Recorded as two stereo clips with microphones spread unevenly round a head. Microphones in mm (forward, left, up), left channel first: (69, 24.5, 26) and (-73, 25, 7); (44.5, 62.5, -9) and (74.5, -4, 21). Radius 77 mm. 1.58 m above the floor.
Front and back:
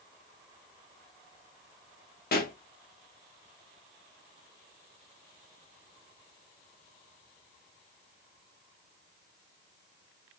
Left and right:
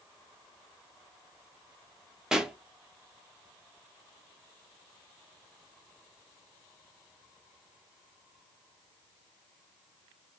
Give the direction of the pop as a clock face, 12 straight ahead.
11 o'clock.